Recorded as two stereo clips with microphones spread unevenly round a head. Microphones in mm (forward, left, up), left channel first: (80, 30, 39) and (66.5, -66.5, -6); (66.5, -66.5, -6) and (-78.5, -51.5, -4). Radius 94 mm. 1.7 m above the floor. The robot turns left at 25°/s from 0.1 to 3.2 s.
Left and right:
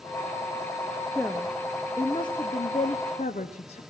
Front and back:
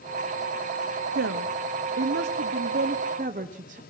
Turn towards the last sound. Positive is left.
turn(degrees=120)